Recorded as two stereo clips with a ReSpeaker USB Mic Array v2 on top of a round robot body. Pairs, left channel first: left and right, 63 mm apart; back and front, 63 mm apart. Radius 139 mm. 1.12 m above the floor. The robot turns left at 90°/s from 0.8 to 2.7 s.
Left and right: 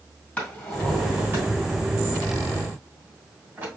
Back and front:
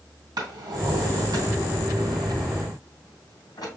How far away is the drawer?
About 2.5 m.